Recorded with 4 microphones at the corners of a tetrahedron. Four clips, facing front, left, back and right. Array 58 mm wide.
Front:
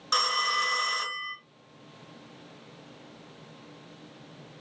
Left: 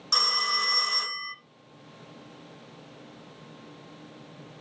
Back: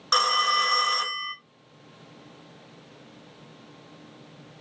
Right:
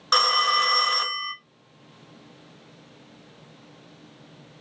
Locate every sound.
0.1 s a phone ringing: 115° right, 0.5 m